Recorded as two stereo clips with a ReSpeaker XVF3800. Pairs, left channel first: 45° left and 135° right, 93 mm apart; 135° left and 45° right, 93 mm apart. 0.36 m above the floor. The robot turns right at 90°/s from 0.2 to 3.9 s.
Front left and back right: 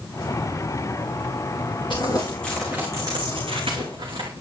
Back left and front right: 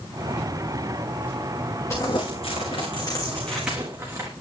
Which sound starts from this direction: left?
Crumpling, at 1.9 s.